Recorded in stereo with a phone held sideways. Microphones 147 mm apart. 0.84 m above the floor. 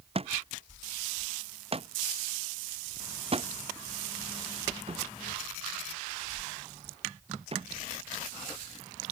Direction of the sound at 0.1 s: 40° right (ahead or behind).